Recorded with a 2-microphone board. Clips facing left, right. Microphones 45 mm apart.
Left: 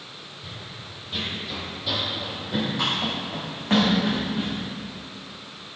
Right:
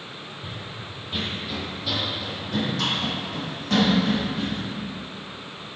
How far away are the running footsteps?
About 3 m.